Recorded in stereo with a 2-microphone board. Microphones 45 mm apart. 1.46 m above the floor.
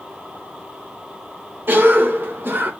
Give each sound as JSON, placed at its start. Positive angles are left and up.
{"t": 1.7, "sound": "a cough", "side_deg": -55, "distance_m": 1.4}